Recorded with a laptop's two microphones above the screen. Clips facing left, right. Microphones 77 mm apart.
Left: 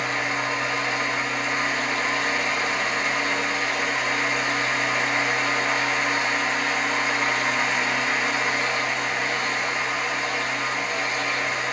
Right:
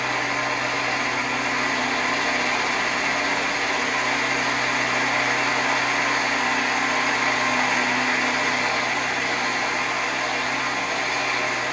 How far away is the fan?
About 1.1 m.